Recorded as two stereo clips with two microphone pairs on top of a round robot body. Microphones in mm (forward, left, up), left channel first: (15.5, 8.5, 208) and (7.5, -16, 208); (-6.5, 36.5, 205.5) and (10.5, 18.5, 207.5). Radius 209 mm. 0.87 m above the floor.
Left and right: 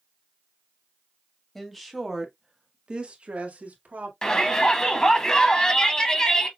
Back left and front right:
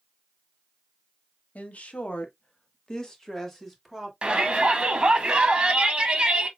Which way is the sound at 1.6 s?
150° left.